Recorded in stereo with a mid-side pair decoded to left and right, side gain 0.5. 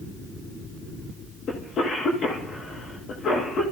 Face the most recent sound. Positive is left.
turn(degrees=55)